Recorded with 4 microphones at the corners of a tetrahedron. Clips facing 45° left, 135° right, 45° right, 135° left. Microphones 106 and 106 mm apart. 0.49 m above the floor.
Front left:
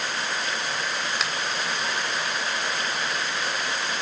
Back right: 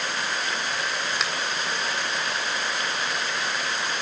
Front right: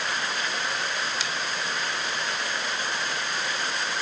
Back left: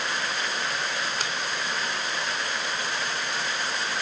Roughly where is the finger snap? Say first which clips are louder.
Even, back left 1 dB; behind left.